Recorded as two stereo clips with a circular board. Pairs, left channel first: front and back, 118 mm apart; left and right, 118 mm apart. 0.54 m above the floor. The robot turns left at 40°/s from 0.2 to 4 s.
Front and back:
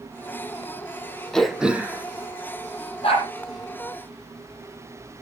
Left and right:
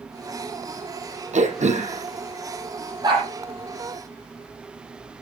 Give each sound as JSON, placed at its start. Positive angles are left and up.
{"t": 1.3, "sound": "throat clearing", "azimuth_deg": -85, "distance_m": 3.0}
{"t": 3.0, "sound": "a dog barking", "azimuth_deg": -35, "distance_m": 9.0}